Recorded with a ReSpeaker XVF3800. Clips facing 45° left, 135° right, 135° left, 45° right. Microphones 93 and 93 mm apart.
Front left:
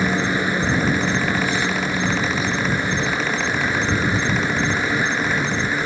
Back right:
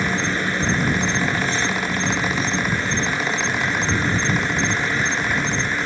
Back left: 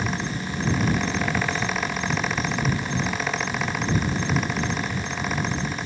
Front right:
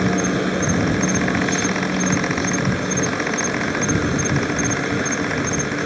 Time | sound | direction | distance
0.0 | an insect | 30° right | ?